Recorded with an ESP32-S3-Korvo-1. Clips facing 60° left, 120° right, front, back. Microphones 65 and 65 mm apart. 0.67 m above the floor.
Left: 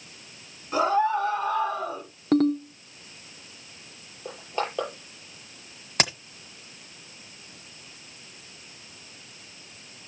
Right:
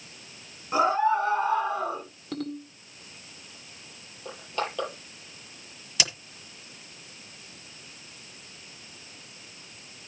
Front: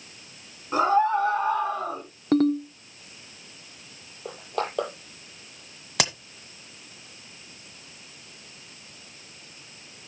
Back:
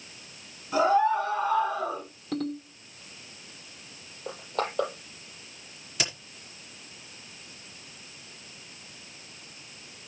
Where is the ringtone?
30° left, 1.2 m.